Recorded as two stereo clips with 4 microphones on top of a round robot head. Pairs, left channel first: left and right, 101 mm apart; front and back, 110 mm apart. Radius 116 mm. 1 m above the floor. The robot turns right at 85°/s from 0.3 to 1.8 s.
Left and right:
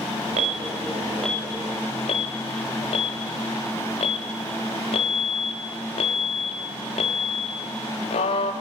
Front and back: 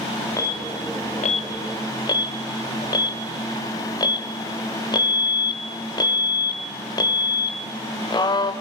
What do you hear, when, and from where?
0.4 s an alarm: 70° right, 1.2 m; by 8.5 s 50° left, 1.2 m